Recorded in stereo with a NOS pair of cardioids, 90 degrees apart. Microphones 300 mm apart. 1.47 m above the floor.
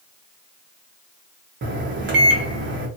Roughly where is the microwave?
Ahead right.